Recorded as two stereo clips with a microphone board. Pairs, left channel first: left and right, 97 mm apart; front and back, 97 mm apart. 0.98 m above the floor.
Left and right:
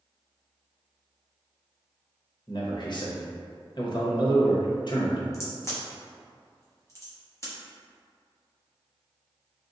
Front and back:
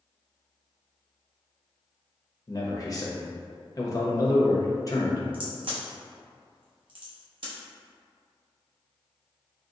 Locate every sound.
2.5 s a man speaking: 50° left, 0.8 m
5.3 s a crack: 150° left, 0.9 m